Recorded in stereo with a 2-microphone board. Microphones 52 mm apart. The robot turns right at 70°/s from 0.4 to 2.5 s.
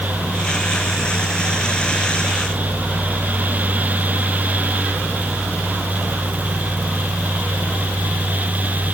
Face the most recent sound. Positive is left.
No sound to turn to.